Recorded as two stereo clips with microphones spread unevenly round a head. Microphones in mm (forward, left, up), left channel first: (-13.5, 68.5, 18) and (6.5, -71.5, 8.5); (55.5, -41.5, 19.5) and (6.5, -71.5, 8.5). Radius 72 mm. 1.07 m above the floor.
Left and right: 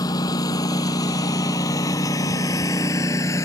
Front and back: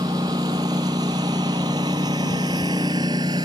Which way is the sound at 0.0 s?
165° left.